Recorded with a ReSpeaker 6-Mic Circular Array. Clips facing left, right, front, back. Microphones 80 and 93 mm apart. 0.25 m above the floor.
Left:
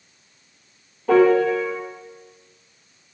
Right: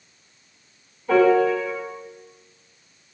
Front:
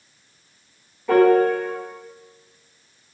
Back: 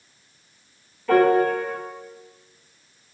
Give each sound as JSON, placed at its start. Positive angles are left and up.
{"t": 1.1, "sound": "a piano", "azimuth_deg": 75, "distance_m": 0.9}